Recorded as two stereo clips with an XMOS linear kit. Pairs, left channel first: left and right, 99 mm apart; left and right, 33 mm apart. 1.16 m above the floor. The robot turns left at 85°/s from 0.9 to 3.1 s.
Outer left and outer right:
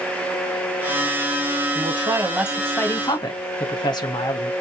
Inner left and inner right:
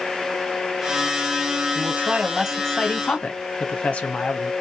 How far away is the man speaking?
About 0.8 m.